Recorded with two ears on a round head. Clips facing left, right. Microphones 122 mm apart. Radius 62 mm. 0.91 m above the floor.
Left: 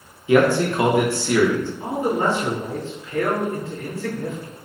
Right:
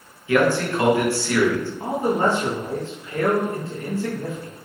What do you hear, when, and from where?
0.3 s a man speaking: 15° left (ahead or behind), 0.5 m
1.8 s a man speaking: 30° right (ahead or behind), 1.4 m